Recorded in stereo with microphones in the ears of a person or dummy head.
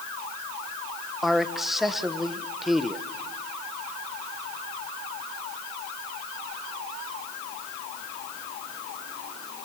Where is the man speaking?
Centre (ahead or behind), 1.1 m.